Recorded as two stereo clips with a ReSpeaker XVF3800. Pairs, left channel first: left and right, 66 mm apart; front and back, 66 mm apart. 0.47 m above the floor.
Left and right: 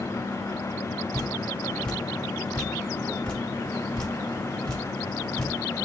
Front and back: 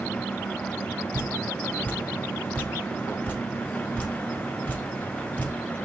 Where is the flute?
No flute in this recording.